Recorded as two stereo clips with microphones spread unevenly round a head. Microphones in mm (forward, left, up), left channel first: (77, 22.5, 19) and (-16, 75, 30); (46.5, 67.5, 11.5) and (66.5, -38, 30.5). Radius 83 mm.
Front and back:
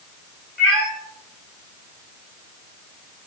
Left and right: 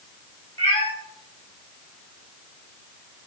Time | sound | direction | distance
0.6 | a cat meowing | 55° left | 1.6 m